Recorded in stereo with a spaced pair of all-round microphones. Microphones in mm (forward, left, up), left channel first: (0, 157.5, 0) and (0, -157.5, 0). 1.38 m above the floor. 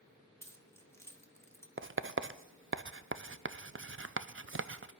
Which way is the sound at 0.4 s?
10° left (ahead or behind).